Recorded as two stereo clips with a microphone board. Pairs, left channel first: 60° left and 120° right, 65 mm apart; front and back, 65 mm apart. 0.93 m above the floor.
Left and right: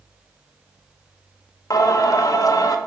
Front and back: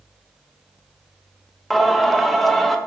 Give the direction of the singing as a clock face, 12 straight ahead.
9 o'clock.